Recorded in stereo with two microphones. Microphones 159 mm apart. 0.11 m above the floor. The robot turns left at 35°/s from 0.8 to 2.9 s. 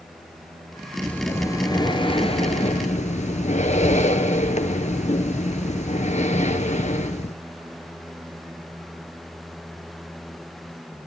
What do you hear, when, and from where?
1.0 s breathing: 170° left, 0.9 m; by 7.4 s 105° left, 0.9 m